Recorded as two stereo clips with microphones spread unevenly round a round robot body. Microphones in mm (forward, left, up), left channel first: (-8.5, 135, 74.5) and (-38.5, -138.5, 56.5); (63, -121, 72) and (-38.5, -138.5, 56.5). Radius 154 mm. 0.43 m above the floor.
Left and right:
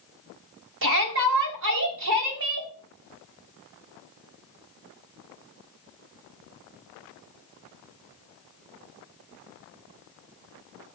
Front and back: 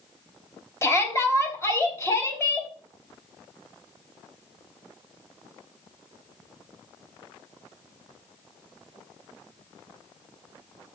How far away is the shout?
About 3.5 m.